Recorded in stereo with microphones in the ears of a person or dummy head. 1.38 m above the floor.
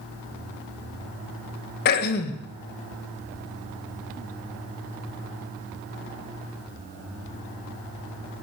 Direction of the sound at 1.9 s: 55° left (ahead or behind).